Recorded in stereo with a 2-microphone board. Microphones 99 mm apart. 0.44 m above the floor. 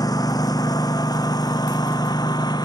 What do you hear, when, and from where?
0.0 s a lawn mower: 40° left (ahead or behind); by 2.7 s 45° left (ahead or behind)